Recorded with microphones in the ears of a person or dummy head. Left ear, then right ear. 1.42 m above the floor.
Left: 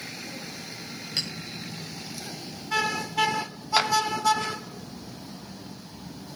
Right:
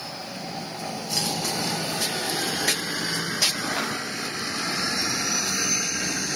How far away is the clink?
About 5 m.